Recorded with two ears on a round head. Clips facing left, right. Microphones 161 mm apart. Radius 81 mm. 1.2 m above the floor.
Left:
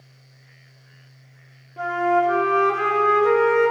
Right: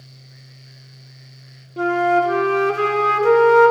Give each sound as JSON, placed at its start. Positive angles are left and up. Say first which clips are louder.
{"t": 1.8, "sound": "a flute", "louder": "right 3 dB", "side_deg": -45, "distance_m": 0.7}